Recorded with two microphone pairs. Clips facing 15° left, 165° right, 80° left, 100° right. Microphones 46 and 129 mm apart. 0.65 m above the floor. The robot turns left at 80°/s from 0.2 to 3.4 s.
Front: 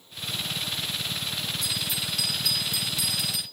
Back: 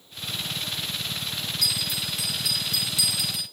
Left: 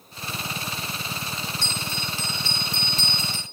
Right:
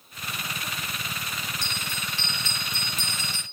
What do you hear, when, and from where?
1.6 s a bell: 170° left, 3.5 m; by 3.4 s 30° left, 3.5 m